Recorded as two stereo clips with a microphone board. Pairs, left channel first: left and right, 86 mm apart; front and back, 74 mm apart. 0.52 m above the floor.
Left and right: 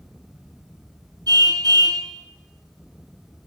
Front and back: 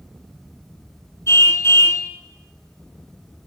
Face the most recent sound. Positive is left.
turn(degrees=-50)